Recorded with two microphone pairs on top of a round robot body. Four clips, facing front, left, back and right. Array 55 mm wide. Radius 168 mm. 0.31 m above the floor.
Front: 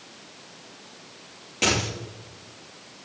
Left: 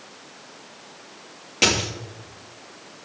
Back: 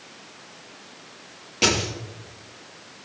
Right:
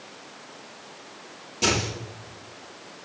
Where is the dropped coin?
90° left, 4.5 m.